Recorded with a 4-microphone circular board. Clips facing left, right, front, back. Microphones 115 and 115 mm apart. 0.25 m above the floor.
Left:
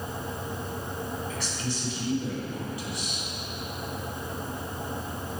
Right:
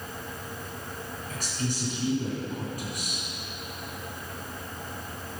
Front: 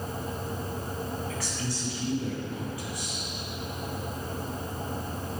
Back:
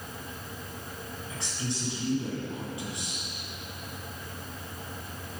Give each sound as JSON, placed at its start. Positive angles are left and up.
{"t": 1.3, "sound": "a woman speaking", "azimuth_deg": -115, "distance_m": 2.5}